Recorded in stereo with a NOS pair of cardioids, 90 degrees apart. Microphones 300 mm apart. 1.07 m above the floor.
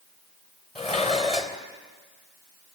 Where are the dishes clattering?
20° left, 3 m.